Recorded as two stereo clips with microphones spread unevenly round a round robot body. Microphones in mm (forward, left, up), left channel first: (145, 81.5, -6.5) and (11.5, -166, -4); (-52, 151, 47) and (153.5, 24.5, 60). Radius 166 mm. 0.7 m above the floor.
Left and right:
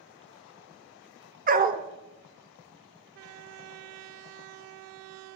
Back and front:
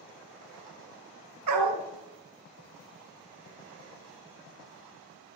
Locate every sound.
1.5 s a dog barking: 55° right, 0.7 m